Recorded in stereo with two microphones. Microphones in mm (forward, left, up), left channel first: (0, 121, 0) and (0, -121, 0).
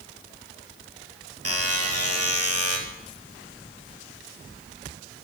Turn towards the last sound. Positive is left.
turn(degrees=-85)